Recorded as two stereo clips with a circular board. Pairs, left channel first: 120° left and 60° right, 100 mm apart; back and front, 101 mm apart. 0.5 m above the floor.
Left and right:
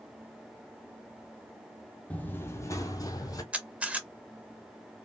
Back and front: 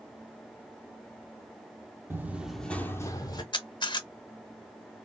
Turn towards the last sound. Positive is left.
turn(degrees=-140)